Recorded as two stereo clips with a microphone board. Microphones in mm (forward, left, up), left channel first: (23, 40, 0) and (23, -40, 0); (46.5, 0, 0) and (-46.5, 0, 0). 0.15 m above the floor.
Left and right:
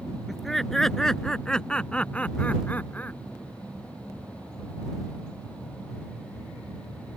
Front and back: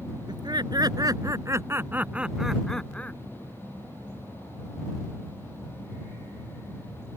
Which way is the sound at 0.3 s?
Straight behind.